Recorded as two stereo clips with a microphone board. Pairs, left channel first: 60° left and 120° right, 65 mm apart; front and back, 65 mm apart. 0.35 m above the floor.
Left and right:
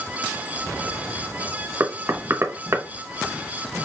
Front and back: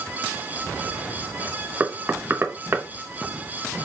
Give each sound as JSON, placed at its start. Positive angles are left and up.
{"t": 1.8, "sound": "knocking", "azimuth_deg": -140, "distance_m": 0.7}